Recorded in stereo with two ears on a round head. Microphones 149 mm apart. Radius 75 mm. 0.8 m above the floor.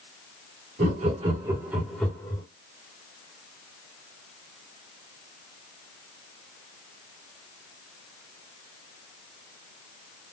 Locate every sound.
0.8 s laughter: 50° right (ahead or behind), 1.4 m; by 2.4 s 25° left (ahead or behind), 1.1 m